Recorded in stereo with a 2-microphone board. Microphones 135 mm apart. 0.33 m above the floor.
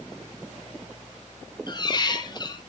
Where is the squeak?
35° left (ahead or behind), 1.5 m.